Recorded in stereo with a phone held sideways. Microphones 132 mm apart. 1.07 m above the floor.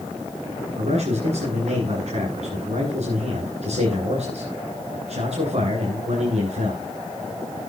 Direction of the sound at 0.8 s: 55° right (ahead or behind).